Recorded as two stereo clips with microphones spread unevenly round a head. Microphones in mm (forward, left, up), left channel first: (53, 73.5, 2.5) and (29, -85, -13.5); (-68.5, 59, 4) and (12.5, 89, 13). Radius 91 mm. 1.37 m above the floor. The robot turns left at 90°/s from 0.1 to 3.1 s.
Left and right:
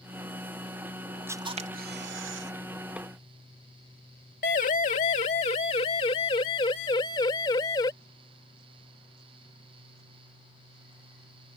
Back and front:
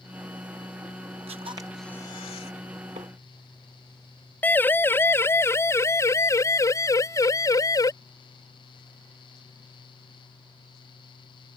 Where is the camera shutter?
25° right; by 2.5 s 135° right.